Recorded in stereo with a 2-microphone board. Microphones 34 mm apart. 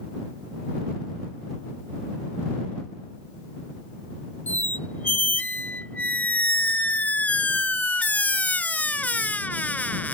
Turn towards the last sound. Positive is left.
turn(degrees=50)  # may be behind; listen again after turning